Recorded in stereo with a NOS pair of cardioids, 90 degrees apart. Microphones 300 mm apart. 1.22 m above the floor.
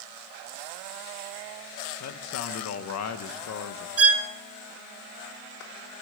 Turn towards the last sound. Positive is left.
turn(degrees=-45)